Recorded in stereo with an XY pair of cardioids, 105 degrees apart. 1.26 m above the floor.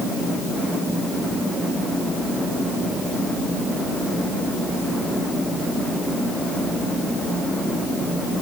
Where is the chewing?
No chewing in this recording.